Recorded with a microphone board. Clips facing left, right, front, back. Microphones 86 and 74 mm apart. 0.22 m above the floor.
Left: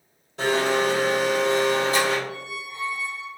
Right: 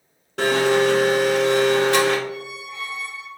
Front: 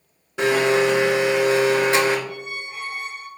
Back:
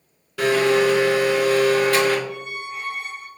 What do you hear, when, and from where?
0.4 s a blender: 70° right, 0.6 m
2.3 s a squeak: 90° right, 0.6 m